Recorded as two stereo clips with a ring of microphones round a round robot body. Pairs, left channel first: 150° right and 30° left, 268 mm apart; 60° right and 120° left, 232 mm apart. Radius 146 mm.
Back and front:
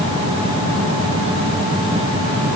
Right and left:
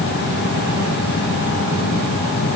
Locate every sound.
Only background noise.